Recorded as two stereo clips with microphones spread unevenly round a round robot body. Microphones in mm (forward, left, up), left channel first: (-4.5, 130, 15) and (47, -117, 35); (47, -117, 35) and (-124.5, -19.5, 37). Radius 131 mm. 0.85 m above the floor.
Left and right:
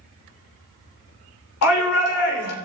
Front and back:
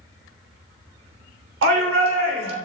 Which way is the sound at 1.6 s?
130° left.